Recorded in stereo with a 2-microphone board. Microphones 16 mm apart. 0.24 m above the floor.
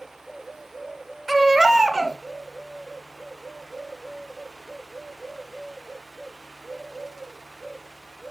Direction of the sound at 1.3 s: Centre (ahead or behind).